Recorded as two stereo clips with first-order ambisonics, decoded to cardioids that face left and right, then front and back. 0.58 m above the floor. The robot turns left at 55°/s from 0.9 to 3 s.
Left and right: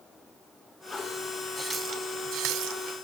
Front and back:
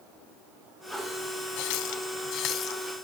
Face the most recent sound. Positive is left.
turn(degrees=-80)